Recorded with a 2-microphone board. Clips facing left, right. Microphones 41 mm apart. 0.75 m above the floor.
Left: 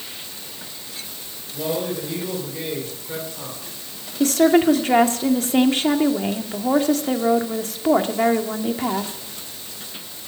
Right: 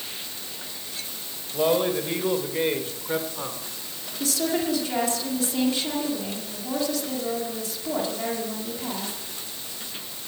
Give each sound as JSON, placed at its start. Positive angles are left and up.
{"t": 1.5, "sound": "a man speaking", "side_deg": -45, "distance_m": 4.0}
{"t": 4.2, "sound": "a woman speaking", "side_deg": 50, "distance_m": 2.0}